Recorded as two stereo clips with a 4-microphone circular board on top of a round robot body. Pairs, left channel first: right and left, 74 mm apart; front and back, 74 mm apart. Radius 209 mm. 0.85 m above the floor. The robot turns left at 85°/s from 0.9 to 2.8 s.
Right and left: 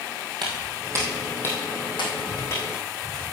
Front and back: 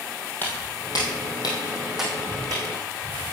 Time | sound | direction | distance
0.4 | footsteps | 65° left | 1.9 m